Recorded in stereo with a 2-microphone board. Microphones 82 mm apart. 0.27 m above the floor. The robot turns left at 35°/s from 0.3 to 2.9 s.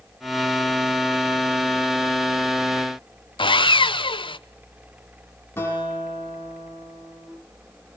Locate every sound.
3.4 s sawing: 80° left, 0.6 m
5.6 s a guitar: 30° left (ahead or behind), 9.5 m